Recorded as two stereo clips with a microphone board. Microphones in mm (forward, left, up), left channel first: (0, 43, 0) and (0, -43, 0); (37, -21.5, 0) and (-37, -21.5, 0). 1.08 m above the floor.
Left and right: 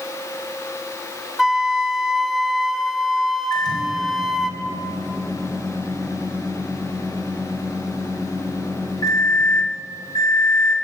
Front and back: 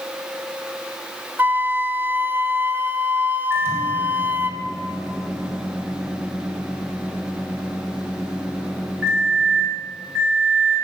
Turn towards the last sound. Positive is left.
turn(degrees=125)